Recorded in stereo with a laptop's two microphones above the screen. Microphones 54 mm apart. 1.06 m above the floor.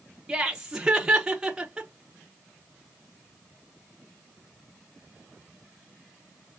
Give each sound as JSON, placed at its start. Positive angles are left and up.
{"t": 0.3, "sound": "laughter", "side_deg": -15, "distance_m": 0.7}